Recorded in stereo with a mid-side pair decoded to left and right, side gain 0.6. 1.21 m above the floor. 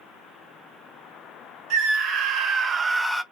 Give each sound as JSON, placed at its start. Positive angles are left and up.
{"t": 1.7, "sound": "a scream", "azimuth_deg": -70, "distance_m": 1.7}